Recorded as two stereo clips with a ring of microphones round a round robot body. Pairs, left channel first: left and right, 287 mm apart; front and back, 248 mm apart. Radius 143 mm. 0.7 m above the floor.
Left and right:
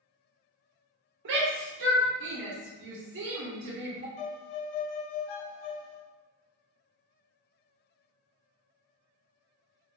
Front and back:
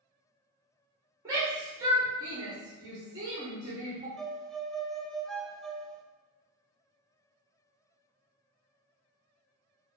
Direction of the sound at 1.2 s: 110° right.